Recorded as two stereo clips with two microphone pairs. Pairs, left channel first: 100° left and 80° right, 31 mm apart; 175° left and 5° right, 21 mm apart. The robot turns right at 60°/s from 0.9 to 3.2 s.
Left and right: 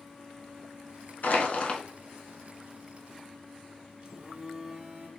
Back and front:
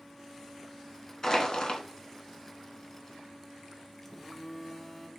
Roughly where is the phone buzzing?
Behind right.